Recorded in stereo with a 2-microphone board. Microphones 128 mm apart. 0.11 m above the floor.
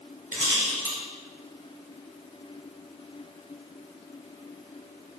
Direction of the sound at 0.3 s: 15° right (ahead or behind).